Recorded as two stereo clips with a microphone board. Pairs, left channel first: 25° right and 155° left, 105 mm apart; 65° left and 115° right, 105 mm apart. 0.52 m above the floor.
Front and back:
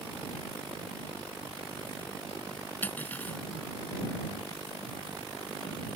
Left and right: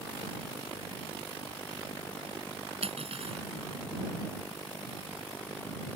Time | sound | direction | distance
2.8 | cutlery clinking | 95° right | ?